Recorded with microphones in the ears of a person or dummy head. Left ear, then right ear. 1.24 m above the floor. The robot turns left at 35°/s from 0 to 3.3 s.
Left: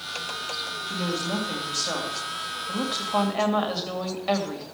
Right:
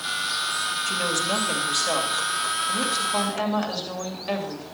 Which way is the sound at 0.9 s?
115° right.